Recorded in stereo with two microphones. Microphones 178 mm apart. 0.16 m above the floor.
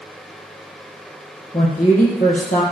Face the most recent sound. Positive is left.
turn(degrees=45)  # may be behind; listen again after turning